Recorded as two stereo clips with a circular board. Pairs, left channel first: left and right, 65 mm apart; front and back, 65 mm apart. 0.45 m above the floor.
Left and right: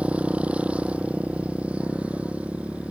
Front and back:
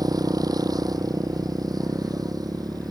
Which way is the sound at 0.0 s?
160° right.